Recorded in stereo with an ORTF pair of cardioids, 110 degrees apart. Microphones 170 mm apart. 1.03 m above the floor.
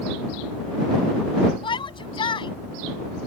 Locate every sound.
1.6 s a shout: 30° left